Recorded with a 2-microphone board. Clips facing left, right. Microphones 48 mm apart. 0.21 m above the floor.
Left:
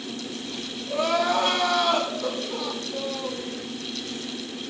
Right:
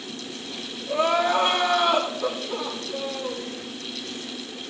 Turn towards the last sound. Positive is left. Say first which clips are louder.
# right 2 dB
turn(degrees=-25)  # may be behind; listen again after turning